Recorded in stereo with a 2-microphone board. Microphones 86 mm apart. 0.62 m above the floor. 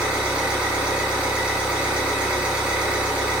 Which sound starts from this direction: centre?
An engine running, at 0.0 s.